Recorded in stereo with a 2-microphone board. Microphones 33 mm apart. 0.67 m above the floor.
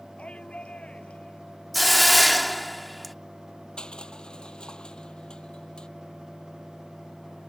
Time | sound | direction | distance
0.2 | a shout | 40° left (ahead or behind) | ?
1.7 | a hiss | centre (ahead or behind) | ?
3.8 | crushing | 30° left (ahead or behind) | ?